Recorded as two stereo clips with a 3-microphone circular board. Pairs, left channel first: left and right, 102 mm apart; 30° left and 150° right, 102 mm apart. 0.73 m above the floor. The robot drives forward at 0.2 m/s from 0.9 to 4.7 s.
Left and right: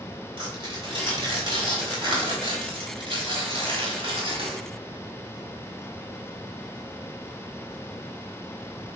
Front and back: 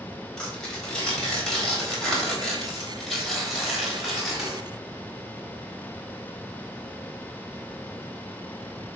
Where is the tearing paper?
50° right, 3.5 m; by 4.6 s 65° right, 3 m.